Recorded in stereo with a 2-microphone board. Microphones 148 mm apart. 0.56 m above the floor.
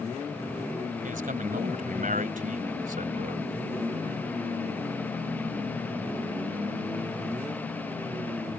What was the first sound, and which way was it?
A man speaking, 65° right (ahead or behind).